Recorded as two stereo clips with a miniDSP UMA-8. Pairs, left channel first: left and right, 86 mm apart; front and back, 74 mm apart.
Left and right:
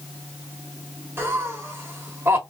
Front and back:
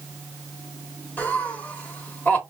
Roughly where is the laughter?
Ahead right.